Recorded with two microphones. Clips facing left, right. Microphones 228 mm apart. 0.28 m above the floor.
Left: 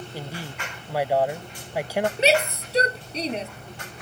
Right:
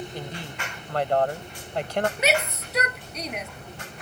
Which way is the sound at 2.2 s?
30° left (ahead or behind).